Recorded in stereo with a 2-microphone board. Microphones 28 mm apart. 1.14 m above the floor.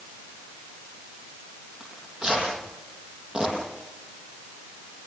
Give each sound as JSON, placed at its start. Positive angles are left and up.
{"t": 1.8, "sound": "tearing paper", "side_deg": -30, "distance_m": 9.0}